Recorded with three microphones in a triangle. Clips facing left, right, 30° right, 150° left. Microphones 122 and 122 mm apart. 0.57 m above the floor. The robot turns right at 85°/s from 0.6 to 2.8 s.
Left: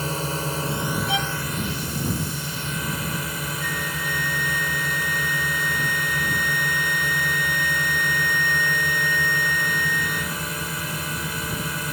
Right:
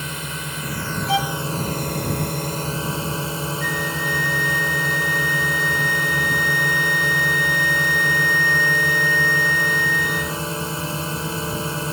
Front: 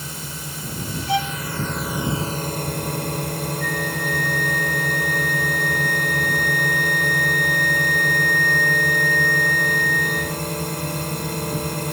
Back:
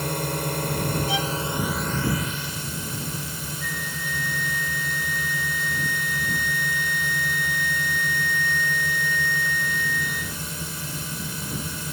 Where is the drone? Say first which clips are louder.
Left 5 dB, back 8 dB; 140° left; by 11.9 s 35° right.